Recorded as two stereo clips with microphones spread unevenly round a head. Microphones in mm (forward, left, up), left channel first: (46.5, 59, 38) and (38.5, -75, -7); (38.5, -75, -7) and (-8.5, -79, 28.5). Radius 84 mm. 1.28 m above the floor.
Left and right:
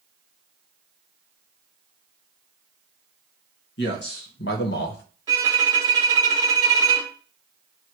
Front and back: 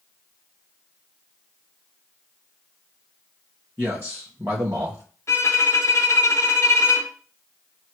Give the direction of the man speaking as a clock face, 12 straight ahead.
9 o'clock.